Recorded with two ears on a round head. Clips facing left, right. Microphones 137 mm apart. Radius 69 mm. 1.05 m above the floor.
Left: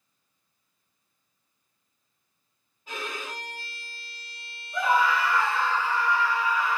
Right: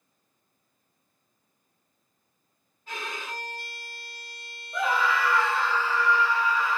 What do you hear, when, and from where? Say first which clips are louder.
2.9 s a violin: left 1 dB; 10° left (ahead or behind), 1.6 m
4.7 s a scream: left 2 dB; 65° right (ahead or behind), 1.5 m